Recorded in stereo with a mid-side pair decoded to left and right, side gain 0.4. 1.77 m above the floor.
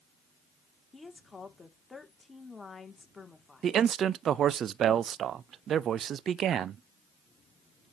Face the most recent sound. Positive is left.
turn(degrees=-60)